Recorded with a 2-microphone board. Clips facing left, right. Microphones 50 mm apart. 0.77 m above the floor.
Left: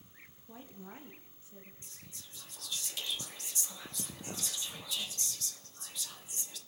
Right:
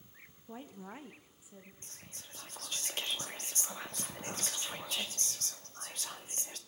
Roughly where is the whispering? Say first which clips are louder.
Right 2 dB; right.